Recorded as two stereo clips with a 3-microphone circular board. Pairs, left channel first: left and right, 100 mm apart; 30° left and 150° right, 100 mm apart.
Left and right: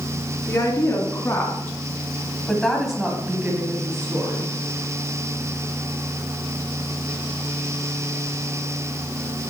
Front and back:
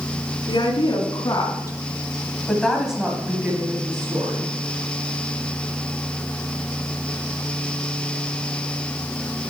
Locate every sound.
0.5 s a woman speaking: 45° left, 2.5 m; by 4.5 s 135° right, 2.0 m